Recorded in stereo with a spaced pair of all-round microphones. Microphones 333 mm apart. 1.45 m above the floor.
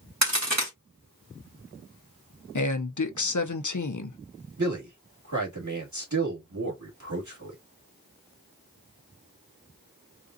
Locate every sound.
0.2 s a crack: 55° right (ahead or behind), 1.8 m
2.5 s a man speaking: 60° left (ahead or behind), 0.7 m
4.6 s a man speaking: 60° right (ahead or behind), 2 m